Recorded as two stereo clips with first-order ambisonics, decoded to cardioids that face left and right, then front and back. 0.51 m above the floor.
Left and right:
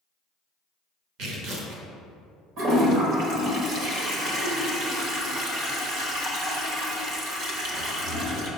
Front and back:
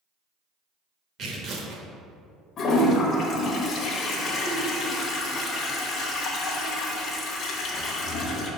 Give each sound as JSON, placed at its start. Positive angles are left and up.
{"t": 1.2, "sound": "tearing paper", "azimuth_deg": -125, "distance_m": 1.3}
{"t": 2.6, "sound": "a toilet flushing", "azimuth_deg": -50, "distance_m": 1.3}